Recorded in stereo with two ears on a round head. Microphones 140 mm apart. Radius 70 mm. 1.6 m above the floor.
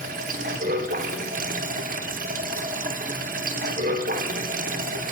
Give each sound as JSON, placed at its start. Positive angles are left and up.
{"t": 0.0, "sound": "running water", "side_deg": -55, "distance_m": 1.0}